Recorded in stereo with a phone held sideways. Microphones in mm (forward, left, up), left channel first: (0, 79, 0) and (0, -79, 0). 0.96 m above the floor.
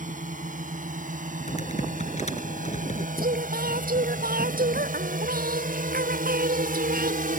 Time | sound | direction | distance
0.0 | a drone | 60° right (ahead or behind) | ?
1.5 | typing on a keyboard | 50° left (ahead or behind) | ?
3.2 | singing | 70° right (ahead or behind) | ?